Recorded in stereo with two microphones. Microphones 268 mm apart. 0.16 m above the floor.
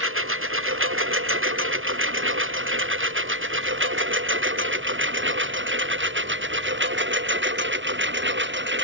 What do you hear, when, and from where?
0.0 s a lawn mower: 50° right (ahead or behind); by 8.8 s 45° right (ahead or behind)